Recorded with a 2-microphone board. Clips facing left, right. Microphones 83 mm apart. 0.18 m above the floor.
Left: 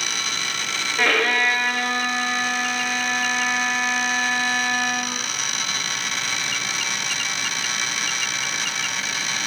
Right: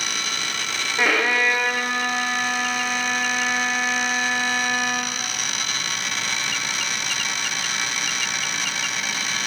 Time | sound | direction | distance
1.0 | a violin | 10° right (ahead or behind) | 4 m